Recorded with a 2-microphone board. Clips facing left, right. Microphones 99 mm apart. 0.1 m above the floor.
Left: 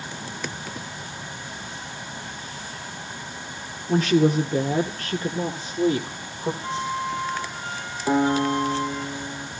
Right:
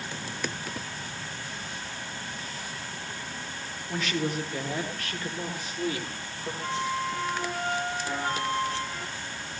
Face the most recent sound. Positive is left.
turn(degrees=50)  # may be behind; listen again after turning